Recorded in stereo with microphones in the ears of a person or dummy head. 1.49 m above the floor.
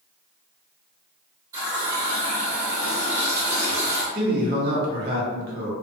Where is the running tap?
20° right (ahead or behind), 1.2 m.